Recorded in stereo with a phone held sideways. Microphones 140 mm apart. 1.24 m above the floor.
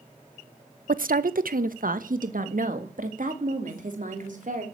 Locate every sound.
0.9 s a woman speaking: 75° right (ahead or behind), 0.6 m; by 4.6 s 65° right (ahead or behind), 3 m